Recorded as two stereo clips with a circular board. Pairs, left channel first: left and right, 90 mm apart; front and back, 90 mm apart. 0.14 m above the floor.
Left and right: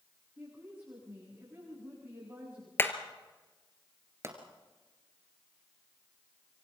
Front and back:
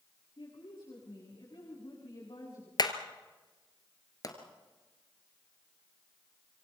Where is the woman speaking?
25° right, 9 m.